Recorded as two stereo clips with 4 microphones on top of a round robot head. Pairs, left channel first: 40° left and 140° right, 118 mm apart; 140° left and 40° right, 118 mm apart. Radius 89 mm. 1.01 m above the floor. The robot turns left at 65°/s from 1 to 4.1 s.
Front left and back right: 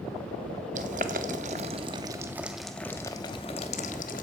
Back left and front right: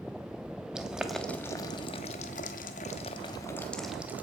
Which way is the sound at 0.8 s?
125° right.